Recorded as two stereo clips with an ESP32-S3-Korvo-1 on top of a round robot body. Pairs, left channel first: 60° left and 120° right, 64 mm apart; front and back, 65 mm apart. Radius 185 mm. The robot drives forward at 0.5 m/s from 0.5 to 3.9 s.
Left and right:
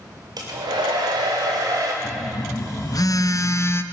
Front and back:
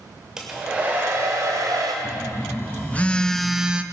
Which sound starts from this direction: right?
A hair dryer, at 0.4 s.